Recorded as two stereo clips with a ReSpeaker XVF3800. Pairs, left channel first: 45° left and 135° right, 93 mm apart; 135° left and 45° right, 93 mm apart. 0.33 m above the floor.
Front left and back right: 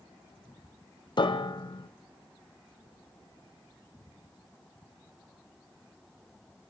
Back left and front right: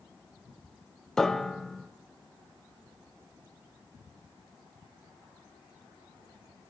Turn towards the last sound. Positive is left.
turn(degrees=50)